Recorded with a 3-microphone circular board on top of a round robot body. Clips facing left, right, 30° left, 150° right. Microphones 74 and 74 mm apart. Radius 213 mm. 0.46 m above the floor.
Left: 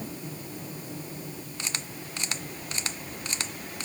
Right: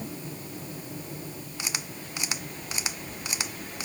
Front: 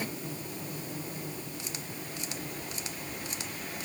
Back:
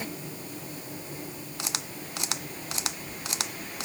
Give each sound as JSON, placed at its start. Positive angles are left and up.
{"t": 1.6, "sound": "a camera shutter", "azimuth_deg": -170}